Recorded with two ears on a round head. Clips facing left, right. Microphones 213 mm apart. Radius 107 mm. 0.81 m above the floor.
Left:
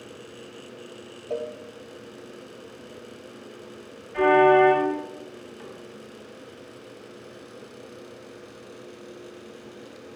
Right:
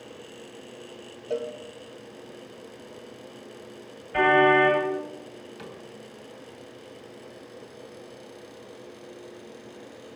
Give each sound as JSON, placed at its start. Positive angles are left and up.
{"t": 1.3, "sound": "a cowbell", "side_deg": -20, "distance_m": 1.1}
{"t": 4.1, "sound": "a car horn", "side_deg": -75, "distance_m": 10.0}
{"t": 5.6, "sound": "a cupboard door", "side_deg": -60, "distance_m": 3.5}